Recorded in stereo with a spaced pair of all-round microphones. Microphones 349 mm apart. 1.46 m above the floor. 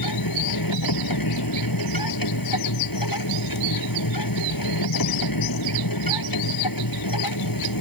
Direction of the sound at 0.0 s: 75° left (ahead or behind).